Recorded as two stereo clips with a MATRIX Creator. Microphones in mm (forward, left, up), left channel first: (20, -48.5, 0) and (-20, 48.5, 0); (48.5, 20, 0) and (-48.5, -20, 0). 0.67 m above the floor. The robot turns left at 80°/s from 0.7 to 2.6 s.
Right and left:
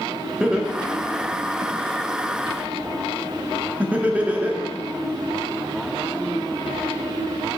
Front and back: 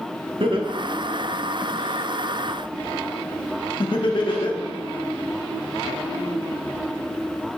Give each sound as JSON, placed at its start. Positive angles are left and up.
{"t": 0.4, "sound": "laughter", "azimuth_deg": -170, "distance_m": 0.9}